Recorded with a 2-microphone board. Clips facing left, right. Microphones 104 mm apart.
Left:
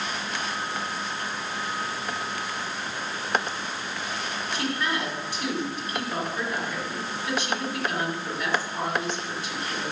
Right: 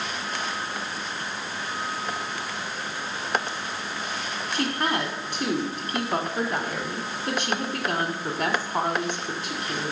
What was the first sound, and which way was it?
A woman speaking, 45° right (ahead or behind).